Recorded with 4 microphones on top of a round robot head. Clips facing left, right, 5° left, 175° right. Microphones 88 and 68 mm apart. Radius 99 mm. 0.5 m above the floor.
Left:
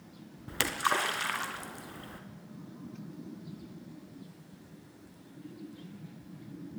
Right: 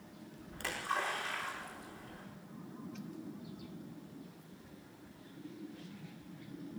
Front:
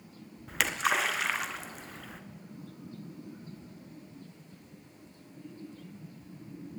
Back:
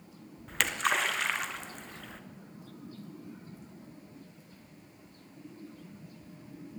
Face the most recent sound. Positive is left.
turn(degrees=90)